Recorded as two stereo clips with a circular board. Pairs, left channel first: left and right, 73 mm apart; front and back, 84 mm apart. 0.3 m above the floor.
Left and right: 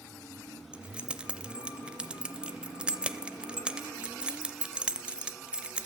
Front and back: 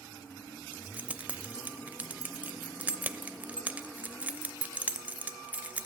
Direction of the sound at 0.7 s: 140° right.